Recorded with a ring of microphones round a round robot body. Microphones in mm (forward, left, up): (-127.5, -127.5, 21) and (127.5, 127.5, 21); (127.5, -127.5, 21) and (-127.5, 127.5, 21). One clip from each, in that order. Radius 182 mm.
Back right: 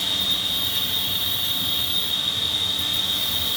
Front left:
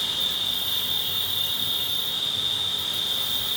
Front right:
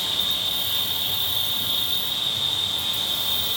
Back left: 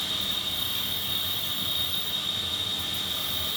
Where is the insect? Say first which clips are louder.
Back right 3 dB, front right 5 dB; 40° right, 1.4 m.